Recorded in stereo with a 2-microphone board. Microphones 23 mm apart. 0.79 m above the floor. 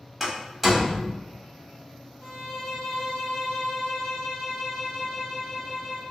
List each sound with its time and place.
0.2 s a door slam: 10° right (ahead or behind), 1.1 m
2.2 s a violin: 25° left (ahead or behind), 0.7 m